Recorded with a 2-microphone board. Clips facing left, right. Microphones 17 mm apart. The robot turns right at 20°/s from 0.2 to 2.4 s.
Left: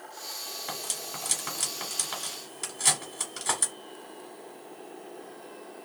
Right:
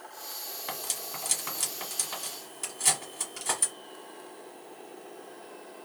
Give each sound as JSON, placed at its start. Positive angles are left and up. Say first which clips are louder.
{"t": 0.7, "sound": "cutlery clinking", "louder": "right 1 dB", "side_deg": -10, "distance_m": 1.2}